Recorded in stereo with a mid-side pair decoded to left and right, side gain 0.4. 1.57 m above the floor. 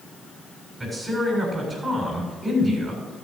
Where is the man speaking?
25° right, 7 m.